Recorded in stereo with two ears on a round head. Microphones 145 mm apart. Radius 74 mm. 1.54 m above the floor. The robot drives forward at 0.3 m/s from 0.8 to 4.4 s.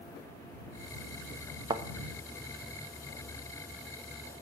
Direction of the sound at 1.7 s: 25° right (ahead or behind).